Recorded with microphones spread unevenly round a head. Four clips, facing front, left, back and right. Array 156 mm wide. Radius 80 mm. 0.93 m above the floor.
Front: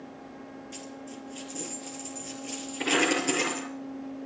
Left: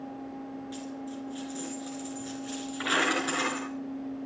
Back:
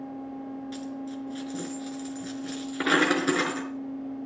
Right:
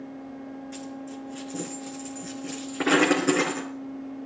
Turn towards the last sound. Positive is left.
turn(degrees=-125)